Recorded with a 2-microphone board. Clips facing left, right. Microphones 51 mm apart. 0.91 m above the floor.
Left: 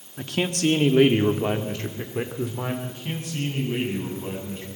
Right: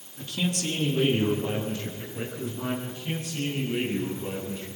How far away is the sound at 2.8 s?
About 7.5 m.